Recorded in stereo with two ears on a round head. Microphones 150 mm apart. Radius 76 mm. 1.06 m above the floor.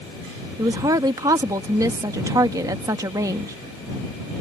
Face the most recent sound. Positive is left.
turn(degrees=-20)  # may be behind; listen again after turning